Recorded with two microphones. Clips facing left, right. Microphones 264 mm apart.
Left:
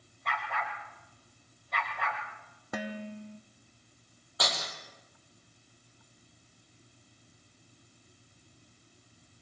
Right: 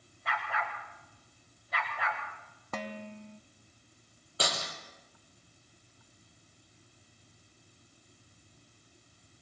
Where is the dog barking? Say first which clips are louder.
Even; 5° right (ahead or behind), 7 m.